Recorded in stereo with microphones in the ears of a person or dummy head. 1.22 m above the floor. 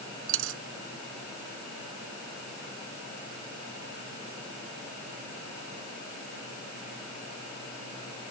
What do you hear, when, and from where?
0.3 s a dropped coin: 75° right (ahead or behind)